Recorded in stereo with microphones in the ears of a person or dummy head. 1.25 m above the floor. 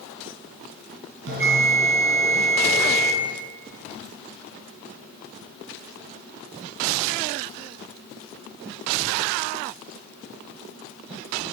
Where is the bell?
60° right (ahead or behind), 4.5 m.